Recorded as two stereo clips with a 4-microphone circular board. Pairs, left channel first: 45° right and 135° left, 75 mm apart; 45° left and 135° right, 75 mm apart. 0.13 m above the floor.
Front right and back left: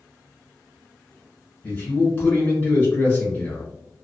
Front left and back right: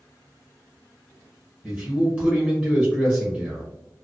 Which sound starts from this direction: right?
A man speaking, at 1.6 s.